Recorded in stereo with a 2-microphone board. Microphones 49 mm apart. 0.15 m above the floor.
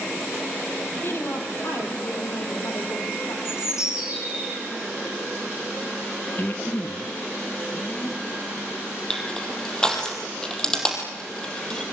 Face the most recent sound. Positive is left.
turn(degrees=15)  # may be behind; listen again after turning